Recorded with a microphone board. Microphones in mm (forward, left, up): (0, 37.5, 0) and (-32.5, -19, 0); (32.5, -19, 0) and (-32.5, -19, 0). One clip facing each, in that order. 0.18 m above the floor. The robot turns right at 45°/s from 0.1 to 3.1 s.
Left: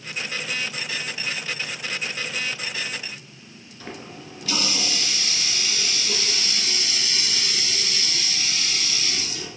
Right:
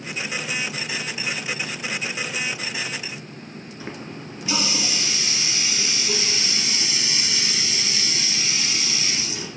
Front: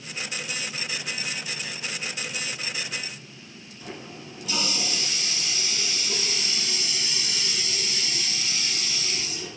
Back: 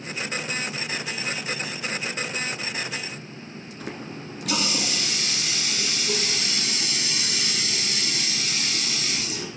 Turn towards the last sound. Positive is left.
turn(degrees=170)